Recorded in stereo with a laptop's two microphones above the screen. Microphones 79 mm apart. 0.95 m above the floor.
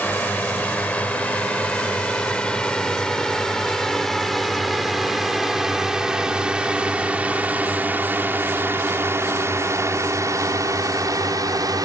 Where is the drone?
20° left (ahead or behind); by 11.9 s 50° right (ahead or behind).